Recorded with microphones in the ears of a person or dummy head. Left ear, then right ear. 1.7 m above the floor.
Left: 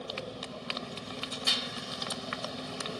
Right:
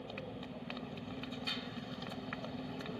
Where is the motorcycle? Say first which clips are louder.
Left 7 dB; 45° left (ahead or behind).